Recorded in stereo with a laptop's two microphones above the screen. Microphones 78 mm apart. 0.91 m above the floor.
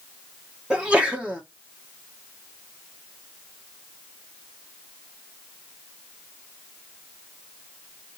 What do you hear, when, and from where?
0.7 s a sneeze: 15° right (ahead or behind), 1.0 m